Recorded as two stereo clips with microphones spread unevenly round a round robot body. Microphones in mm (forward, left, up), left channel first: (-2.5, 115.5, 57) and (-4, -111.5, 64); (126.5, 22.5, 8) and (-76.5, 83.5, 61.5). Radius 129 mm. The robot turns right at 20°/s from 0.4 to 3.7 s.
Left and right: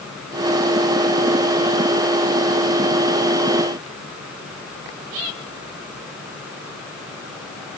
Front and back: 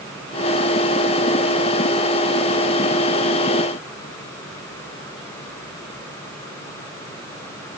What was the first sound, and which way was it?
Only background noise.